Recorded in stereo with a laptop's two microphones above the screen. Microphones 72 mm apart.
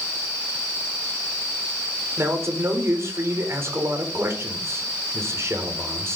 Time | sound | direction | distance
2.2 | a man speaking | 40° right (ahead or behind) | 4.5 m